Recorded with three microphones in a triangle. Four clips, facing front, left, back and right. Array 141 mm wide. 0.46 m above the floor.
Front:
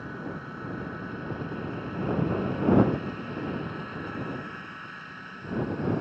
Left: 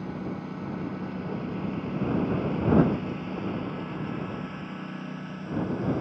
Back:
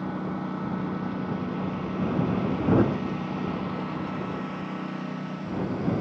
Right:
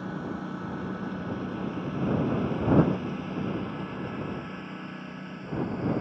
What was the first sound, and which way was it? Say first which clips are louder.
A lawn mower: even, back 6 dB; 170° right.